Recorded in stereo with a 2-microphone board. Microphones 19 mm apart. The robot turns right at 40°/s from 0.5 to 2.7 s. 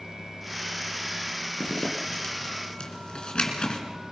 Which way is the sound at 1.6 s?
55° left (ahead or behind).